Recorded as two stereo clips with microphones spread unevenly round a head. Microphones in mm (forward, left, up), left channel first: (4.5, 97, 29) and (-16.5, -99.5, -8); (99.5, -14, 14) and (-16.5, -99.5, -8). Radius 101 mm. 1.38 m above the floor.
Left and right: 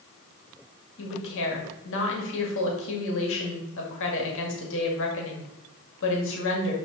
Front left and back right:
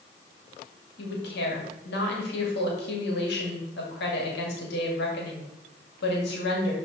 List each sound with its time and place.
1.0 s a woman speaking: 55° left, 2.5 m